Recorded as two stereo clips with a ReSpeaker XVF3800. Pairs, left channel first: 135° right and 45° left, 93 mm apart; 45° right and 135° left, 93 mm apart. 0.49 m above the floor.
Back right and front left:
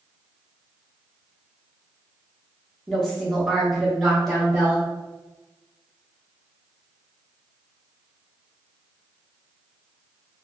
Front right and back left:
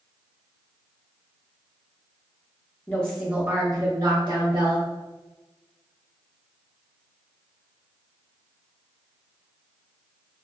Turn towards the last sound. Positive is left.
turn(degrees=135)